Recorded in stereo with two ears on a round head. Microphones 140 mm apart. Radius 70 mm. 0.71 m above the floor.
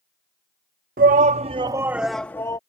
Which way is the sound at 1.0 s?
55° right (ahead or behind).